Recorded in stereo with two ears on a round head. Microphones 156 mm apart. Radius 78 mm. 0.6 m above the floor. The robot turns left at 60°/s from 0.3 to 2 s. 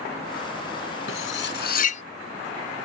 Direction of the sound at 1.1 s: 85° left.